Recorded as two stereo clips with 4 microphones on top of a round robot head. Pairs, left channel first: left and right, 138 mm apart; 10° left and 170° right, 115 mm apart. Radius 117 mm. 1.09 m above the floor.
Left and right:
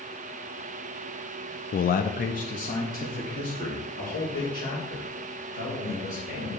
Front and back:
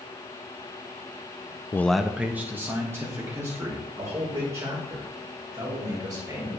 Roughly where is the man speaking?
Left.